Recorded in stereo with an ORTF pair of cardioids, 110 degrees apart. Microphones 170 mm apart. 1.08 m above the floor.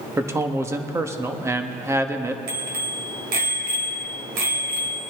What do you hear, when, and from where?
0.2 s a man speaking: 15° right, 1.3 m
2.5 s a bicycle bell: 70° right, 3.5 m